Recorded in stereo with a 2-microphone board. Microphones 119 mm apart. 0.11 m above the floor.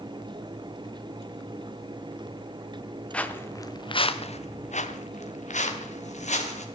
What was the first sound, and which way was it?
Footsteps, 10° left (ahead or behind).